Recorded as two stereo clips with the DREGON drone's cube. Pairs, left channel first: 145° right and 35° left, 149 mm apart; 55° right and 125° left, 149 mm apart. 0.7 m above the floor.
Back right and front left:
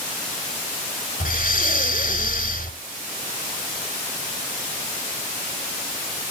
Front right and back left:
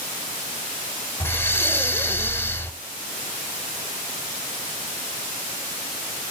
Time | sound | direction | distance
1.2 | breathing | 130° right | 0.9 m